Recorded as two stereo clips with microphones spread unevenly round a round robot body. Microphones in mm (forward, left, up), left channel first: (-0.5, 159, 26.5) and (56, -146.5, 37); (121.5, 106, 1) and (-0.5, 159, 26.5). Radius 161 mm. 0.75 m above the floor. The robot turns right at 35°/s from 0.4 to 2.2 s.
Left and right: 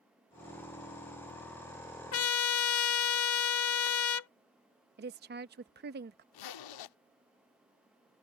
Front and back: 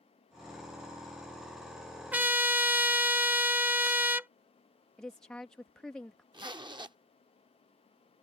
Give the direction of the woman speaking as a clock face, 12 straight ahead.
3 o'clock.